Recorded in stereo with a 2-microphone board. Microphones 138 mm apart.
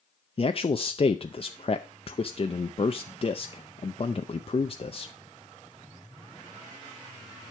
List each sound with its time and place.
0.4 s a man speaking: 45° left (ahead or behind), 0.5 m